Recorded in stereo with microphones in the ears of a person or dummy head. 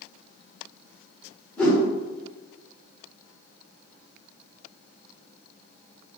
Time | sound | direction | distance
1.6 | a whoosh | 5° left (ahead or behind) | 0.8 m